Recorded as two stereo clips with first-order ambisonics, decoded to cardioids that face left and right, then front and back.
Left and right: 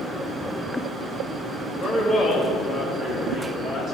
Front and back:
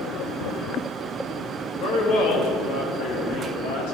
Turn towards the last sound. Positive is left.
turn(degrees=0)